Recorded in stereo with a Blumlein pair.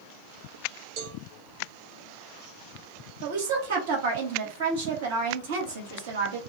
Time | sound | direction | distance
1.0 | a cowbell | 45° right | 1.0 m
3.2 | a woman speaking | 55° right | 1.1 m